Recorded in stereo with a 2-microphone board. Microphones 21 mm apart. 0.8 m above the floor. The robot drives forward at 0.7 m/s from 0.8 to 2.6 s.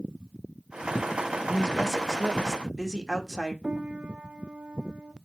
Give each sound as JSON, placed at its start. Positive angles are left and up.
{"t": 1.4, "sound": "a woman speaking", "side_deg": 15, "distance_m": 1.6}
{"t": 3.6, "sound": "a piano", "side_deg": -70, "distance_m": 0.7}